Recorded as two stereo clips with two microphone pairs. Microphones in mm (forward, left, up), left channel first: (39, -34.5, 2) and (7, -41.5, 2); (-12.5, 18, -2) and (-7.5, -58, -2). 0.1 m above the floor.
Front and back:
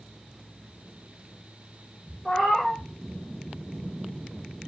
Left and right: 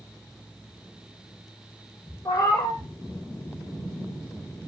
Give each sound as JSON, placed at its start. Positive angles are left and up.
{"t": 2.2, "sound": "a cat meowing", "azimuth_deg": 75, "distance_m": 0.9}